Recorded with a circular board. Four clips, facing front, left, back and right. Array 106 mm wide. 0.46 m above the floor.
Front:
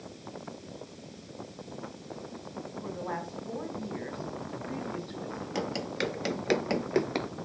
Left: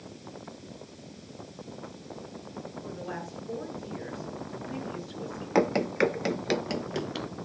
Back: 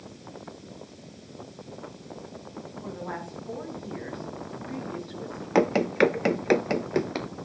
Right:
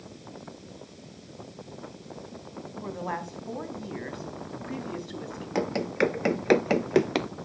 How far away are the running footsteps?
About 0.6 m.